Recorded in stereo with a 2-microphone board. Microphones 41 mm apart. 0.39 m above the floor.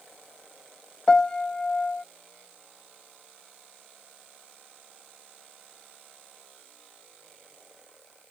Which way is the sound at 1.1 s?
15° left (ahead or behind).